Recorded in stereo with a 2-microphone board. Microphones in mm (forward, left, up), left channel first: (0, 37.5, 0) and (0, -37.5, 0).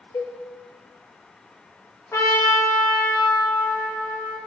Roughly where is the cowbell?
Left.